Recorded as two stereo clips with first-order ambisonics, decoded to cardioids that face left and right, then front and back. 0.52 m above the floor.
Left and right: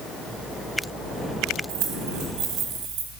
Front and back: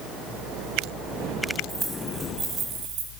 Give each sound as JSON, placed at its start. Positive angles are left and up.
{"t": 1.7, "sound": "keys jangling", "azimuth_deg": -105, "distance_m": 2.0}